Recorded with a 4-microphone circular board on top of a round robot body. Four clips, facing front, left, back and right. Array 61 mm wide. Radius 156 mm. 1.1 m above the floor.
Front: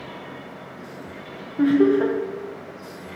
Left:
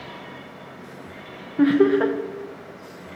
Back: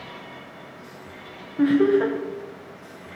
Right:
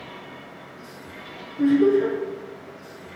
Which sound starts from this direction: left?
Laughter, at 1.6 s.